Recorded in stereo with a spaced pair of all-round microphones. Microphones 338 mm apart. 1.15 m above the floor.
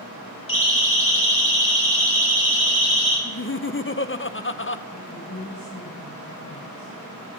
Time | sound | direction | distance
0.5 | a siren | 70° left (ahead or behind) | 5 m
3.2 | laughter | 35° left (ahead or behind) | 0.7 m
4.9 | a woman speaking | 80° left | 6 m